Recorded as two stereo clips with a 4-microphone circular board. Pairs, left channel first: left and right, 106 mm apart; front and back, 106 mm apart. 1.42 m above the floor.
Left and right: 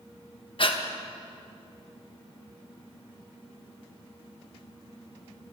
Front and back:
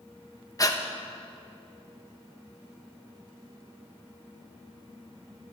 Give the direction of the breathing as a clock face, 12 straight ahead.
10 o'clock.